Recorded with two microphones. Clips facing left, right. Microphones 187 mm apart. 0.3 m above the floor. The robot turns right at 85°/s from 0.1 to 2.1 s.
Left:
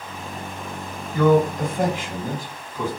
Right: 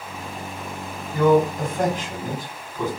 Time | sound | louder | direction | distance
1.1 | a man speaking | even | 15° right (ahead or behind) | 1.4 m